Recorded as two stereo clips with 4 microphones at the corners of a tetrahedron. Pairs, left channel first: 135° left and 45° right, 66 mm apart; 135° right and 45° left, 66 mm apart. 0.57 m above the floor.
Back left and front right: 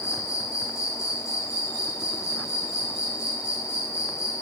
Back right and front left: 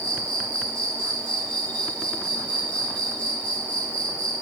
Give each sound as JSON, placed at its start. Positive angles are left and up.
{"t": 0.0, "sound": "an insect", "azimuth_deg": 160, "distance_m": 3.5}